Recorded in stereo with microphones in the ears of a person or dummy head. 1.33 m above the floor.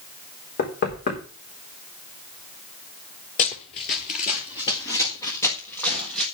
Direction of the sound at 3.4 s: 35° left (ahead or behind).